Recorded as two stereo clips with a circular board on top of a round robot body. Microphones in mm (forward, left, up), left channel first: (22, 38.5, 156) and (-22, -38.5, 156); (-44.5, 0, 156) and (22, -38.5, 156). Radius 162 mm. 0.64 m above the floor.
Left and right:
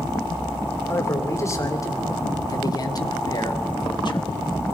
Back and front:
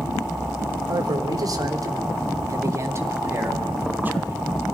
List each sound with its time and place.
0.9 s a man speaking: straight ahead, 3 m; by 4.5 s 40° left, 2.5 m